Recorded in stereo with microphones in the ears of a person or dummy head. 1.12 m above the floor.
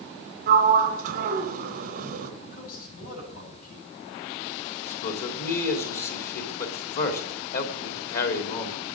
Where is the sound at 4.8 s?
55° left (ahead or behind), 3 m.